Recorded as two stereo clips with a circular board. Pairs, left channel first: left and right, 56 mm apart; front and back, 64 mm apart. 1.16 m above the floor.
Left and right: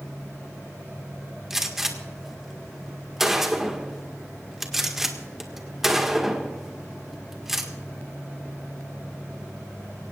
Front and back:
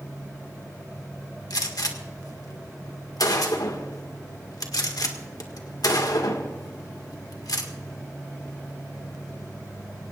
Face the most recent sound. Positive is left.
turn(degrees=-5)